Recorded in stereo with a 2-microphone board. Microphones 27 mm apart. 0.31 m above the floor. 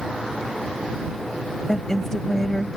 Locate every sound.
1.7 s a woman speaking: 20° left (ahead or behind)